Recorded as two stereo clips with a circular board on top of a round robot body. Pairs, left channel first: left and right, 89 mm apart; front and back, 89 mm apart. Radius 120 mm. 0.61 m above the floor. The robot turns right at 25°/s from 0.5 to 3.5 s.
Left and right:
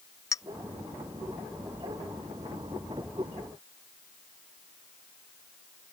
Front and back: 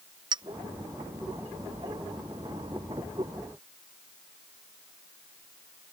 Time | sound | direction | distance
0.3 | a clink | 145° left | ?